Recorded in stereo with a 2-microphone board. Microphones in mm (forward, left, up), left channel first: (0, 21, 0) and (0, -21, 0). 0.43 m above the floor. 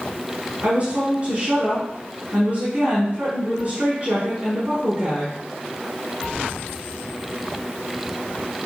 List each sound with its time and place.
0.6 s a woman speaking: 30° right (ahead or behind), 4.5 m